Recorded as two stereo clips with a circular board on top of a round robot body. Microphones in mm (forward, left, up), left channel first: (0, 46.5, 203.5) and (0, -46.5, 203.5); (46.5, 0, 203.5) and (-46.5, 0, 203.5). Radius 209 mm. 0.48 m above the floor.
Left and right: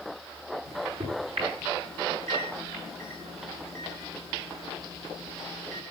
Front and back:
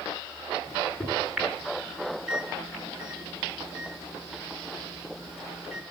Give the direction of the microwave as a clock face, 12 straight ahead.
3 o'clock.